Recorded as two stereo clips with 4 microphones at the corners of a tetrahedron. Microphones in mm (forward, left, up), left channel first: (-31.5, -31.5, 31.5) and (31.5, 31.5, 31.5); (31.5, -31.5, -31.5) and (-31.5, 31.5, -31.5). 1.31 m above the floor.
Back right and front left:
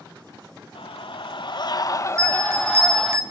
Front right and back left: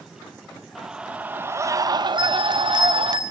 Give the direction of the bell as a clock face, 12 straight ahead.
9 o'clock.